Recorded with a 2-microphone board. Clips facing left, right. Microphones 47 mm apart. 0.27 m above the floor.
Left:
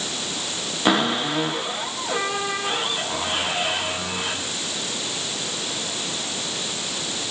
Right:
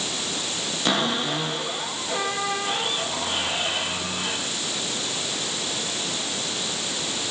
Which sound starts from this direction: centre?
A cupboard door, at 0.8 s.